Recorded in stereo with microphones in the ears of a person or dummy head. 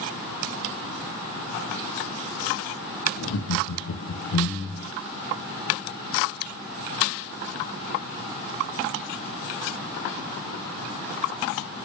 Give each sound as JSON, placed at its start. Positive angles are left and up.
{"t": 3.2, "sound": "laughter", "side_deg": 65, "distance_m": 1.0}